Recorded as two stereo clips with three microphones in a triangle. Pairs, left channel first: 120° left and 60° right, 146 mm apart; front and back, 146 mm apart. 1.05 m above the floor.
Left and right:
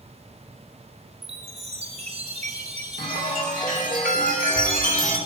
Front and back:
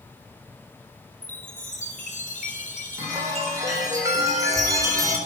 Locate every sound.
1.2 s a chime: 20° right, 3 m
3.0 s a chime: 115° left, 3.5 m